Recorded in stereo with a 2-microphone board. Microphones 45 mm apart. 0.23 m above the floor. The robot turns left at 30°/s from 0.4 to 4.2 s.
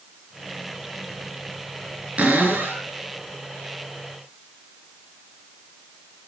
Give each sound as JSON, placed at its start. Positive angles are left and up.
{"t": 2.2, "sound": "a cupboard door", "side_deg": -25, "distance_m": 4.0}